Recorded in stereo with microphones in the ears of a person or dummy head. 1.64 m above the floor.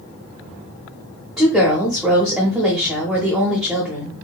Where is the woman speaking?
Centre (ahead or behind), 0.8 m.